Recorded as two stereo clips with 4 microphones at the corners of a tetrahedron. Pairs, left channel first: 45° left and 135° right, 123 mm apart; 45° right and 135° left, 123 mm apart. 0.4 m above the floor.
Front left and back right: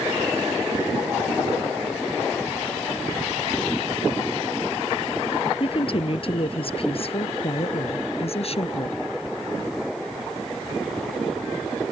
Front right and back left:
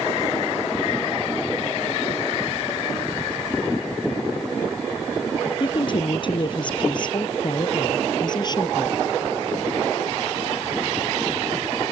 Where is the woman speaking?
5° left; by 9.0 s 10° left.